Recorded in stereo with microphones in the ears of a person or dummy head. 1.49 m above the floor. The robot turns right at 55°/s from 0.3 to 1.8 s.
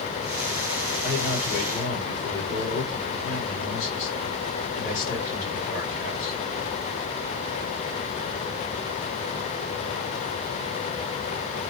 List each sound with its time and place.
1.0 s a man speaking: 5° left, 2.5 m; by 6.4 s 50° left, 2.5 m